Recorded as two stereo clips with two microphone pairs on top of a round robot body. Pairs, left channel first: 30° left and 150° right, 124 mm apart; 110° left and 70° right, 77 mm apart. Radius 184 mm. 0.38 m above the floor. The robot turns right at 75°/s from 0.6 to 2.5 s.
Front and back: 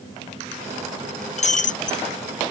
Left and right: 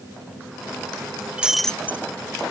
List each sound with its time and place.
1.4 s breaking glass: 5° left; by 2.0 s 50° left